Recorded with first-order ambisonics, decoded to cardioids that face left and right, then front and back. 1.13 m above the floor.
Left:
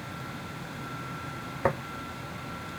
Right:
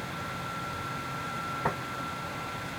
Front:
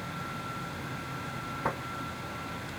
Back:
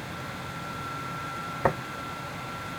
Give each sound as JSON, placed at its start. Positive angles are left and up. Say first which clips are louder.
{"t": 1.6, "sound": "tapping", "louder": "left 5 dB, back 7 dB", "azimuth_deg": 150, "distance_m": 1.3}